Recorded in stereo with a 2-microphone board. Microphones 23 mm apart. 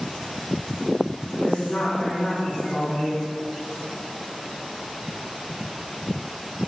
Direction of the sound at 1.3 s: 45° left (ahead or behind).